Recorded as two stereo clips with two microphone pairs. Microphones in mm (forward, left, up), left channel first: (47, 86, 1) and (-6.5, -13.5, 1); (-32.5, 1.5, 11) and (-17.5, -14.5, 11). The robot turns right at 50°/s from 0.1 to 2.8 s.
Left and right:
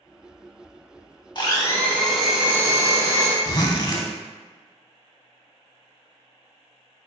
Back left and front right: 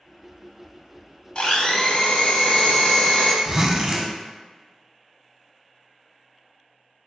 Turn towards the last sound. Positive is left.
turn(degrees=15)